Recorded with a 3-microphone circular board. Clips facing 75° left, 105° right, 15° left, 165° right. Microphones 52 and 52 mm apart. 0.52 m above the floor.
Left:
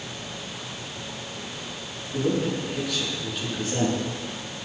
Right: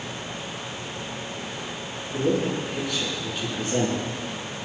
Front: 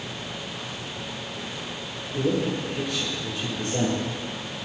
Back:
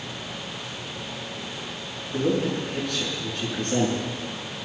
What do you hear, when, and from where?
2.1 s a man speaking: 165° left, 7 m